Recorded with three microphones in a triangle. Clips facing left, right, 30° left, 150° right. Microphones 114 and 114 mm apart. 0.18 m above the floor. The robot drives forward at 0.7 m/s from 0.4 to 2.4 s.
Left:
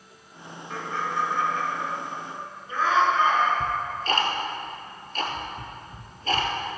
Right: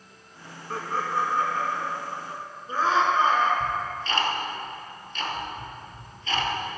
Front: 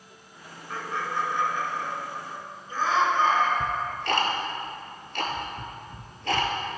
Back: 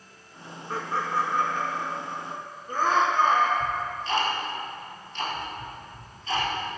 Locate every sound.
0.7 s laughter: 110° right, 2 m; by 3.5 s 140° right, 2.5 m
3.6 s ticking: 45° left, 1.5 m